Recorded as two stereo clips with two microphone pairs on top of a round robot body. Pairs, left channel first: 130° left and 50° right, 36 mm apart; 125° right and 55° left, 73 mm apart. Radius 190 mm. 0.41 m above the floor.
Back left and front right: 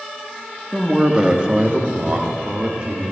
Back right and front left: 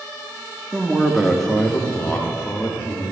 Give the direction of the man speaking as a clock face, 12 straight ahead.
11 o'clock.